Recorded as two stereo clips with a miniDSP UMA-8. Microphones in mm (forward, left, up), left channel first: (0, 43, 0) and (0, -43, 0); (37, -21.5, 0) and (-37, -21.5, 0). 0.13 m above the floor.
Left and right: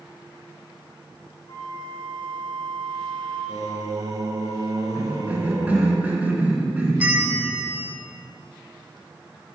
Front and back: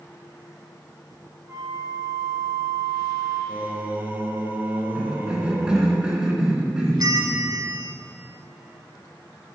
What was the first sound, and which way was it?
A flute, 125° left.